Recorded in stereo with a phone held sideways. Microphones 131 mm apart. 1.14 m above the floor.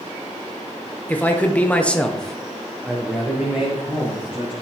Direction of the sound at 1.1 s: 15° left (ahead or behind).